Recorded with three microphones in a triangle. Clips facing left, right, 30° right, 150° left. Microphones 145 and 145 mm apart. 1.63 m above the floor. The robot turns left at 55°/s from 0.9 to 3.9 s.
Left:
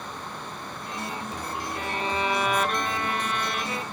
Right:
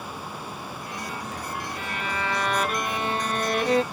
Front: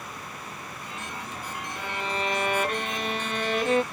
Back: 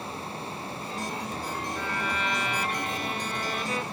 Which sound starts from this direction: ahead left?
A violin, at 1.8 s.